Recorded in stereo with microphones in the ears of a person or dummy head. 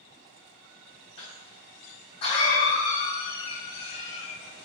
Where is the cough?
35° left (ahead or behind), 1.1 m.